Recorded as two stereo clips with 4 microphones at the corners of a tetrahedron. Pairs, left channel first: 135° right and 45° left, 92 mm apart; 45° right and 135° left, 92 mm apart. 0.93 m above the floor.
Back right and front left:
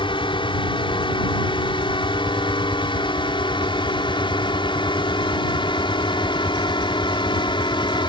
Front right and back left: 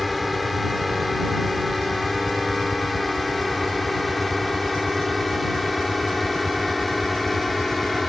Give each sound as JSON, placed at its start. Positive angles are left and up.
{"t": 0.0, "sound": "a drone", "azimuth_deg": -135}